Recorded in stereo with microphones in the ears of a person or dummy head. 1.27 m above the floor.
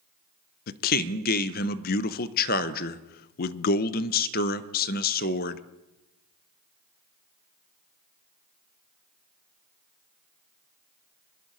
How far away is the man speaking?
About 0.6 m.